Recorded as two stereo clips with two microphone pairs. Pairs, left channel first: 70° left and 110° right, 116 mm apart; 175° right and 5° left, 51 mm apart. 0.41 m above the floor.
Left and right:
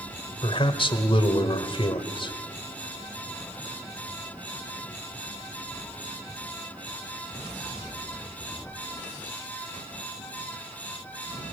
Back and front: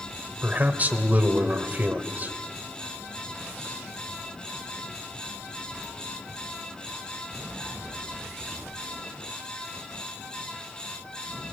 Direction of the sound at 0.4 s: 50° left.